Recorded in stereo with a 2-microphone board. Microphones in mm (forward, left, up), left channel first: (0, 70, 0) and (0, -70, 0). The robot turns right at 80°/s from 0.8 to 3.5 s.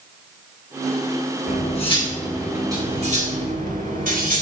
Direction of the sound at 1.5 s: 105° left.